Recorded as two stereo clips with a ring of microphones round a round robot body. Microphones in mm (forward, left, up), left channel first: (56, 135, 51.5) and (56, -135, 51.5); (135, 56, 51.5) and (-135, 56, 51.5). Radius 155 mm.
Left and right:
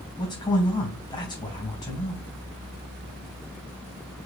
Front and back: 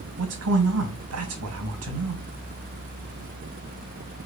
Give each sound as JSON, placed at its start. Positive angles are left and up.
{"t": 0.2, "sound": "a man speaking", "azimuth_deg": 165, "distance_m": 3.0}